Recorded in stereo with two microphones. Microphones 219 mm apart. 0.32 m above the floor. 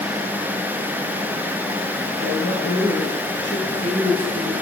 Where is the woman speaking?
75° left (ahead or behind), 3.5 m; by 4.5 s 30° left (ahead or behind), 1.3 m.